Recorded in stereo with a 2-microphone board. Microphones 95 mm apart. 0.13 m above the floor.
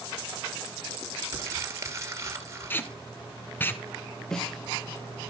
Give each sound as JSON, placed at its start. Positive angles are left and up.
{"t": 1.3, "sound": "crumpling", "side_deg": -30, "distance_m": 2.0}
{"t": 2.7, "sound": "tape being pulled", "side_deg": 20, "distance_m": 0.8}
{"t": 4.3, "sound": "a snare drum", "side_deg": 5, "distance_m": 1.2}